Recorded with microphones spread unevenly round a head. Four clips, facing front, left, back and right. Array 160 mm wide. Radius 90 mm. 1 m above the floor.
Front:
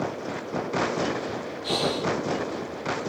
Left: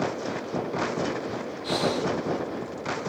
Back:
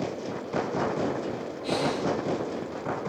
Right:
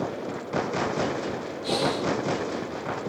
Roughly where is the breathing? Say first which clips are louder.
Even, even; behind right.